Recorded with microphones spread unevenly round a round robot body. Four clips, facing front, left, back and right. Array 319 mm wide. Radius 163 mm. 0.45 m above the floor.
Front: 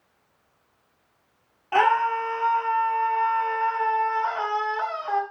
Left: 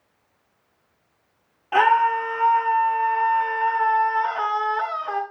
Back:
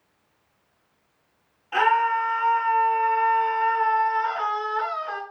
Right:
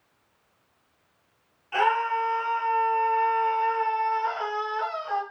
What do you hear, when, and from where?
1.7 s a scream: 55° left, 6 m